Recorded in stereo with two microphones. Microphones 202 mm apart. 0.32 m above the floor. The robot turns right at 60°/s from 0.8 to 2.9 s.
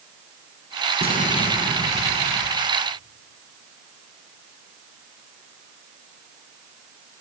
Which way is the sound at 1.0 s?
125° left.